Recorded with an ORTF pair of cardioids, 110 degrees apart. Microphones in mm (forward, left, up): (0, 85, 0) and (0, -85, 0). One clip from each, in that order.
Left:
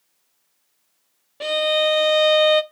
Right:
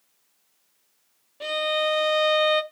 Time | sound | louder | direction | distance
1.4 | a violin | left 5 dB | 35° left | 0.5 m